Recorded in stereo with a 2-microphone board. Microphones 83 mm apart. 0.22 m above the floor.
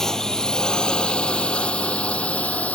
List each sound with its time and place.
0.0 s a drone: 5° left (ahead or behind); by 2.7 s 15° left (ahead or behind)